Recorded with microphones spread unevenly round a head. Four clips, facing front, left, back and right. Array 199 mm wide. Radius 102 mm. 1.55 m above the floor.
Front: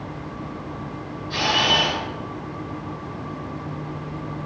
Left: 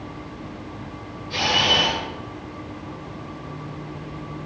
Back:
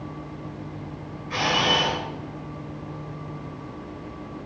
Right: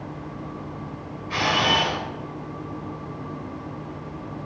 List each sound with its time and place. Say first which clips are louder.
1.3 s a camera shutter: right 1 dB, front 1 dB; 75° right, 6 m